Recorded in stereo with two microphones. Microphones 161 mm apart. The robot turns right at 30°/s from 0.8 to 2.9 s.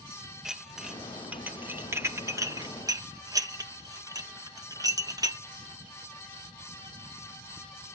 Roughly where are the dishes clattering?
Centre.